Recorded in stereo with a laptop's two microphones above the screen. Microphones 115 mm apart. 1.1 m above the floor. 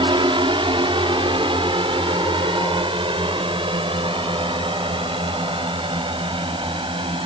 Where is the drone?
45° right (ahead or behind).